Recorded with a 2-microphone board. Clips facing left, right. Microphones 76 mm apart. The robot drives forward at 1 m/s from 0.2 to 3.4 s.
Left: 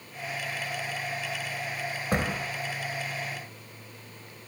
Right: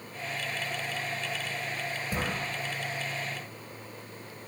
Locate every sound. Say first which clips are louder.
2.1 s a door slam: left 5 dB; 65° left (ahead or behind), 2.5 m; by 2.4 s 70° left (ahead or behind), 2.5 m